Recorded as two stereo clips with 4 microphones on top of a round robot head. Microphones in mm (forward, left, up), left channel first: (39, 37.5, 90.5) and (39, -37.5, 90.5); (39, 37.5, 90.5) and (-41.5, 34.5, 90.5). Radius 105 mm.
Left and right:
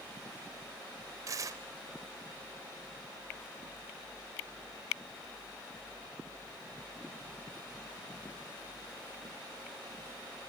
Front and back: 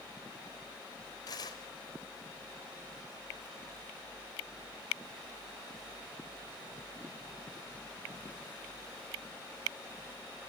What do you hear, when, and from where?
1.3 s tearing paper: 50° right, 1.0 m